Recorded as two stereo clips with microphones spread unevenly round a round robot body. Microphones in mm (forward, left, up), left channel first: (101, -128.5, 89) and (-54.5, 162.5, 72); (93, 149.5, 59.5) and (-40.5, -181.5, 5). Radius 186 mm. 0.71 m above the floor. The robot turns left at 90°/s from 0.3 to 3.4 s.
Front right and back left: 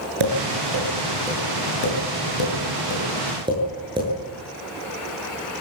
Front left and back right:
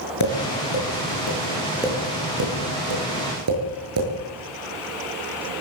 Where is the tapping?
115° left, 8 m; by 4.1 s 165° right, 8 m.